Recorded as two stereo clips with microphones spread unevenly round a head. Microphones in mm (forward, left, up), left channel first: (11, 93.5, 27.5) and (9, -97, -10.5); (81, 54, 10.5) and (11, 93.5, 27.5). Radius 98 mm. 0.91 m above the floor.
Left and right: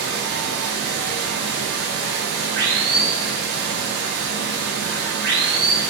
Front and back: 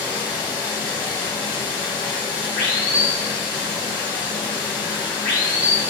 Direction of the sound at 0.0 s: 120° right.